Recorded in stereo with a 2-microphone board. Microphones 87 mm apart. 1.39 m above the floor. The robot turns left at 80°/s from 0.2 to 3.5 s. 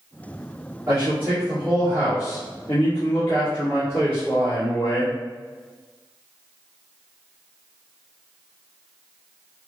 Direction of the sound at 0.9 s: 130° right.